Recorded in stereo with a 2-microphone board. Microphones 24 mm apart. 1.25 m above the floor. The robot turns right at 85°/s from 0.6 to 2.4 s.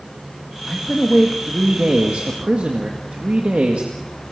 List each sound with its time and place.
0.7 s a man speaking: 150° left, 2.0 m; by 3.9 s 65° right, 2.0 m